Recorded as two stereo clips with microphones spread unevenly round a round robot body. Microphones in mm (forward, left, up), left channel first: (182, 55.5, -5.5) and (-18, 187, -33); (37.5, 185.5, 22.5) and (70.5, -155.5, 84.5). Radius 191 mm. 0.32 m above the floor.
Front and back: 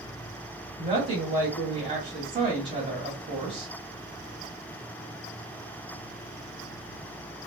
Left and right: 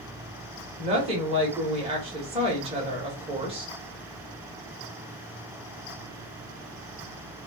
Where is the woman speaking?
160° right, 1.1 m.